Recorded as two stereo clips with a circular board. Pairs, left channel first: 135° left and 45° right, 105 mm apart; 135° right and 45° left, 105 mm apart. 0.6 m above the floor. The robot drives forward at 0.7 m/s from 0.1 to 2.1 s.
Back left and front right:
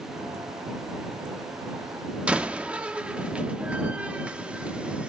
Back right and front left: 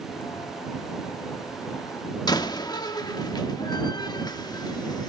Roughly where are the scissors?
I don't hear scissors.